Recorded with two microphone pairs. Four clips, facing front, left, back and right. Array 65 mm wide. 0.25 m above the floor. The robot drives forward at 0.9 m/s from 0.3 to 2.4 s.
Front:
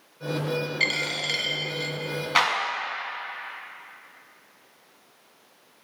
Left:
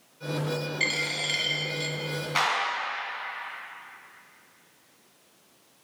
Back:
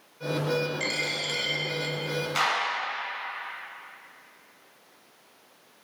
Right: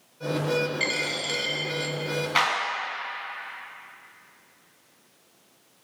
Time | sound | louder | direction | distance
0.8 | a dropped coin | right 1 dB, front 3 dB | 15° left | 1.2 m
2.4 | a clap | right 2 dB, front 4 dB | 15° right | 1.7 m